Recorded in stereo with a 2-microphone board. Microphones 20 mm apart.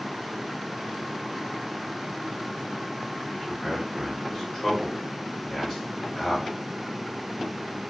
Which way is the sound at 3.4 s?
40° left (ahead or behind).